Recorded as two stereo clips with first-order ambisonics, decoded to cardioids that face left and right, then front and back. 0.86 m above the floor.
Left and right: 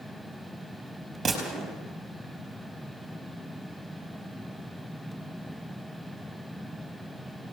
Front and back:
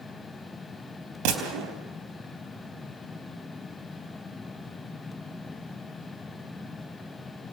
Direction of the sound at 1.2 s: 165° right.